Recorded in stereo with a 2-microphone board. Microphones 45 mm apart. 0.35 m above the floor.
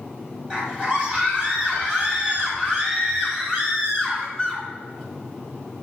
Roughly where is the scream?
Right.